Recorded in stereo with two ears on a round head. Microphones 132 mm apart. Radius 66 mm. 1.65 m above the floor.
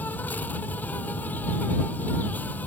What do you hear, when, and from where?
0.0 s an insect: 10° left (ahead or behind)